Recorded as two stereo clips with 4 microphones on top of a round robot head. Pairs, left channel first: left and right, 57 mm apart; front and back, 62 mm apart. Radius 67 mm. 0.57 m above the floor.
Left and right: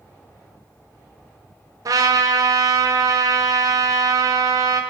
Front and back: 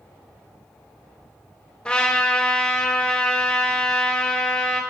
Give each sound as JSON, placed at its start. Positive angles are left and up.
{"t": 1.9, "sound": "a trumpet", "azimuth_deg": -75, "distance_m": 1.0}